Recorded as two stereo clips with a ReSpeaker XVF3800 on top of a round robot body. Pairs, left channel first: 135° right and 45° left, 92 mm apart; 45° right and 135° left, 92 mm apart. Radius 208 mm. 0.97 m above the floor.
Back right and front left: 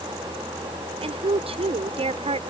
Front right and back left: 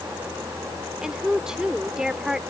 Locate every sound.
1.0 s a woman speaking: 50° left